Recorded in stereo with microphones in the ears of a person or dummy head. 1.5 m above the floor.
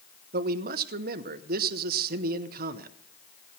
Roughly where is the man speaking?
Right.